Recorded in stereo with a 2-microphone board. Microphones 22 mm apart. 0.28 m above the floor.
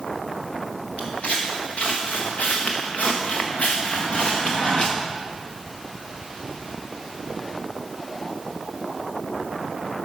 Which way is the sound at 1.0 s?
65° left (ahead or behind).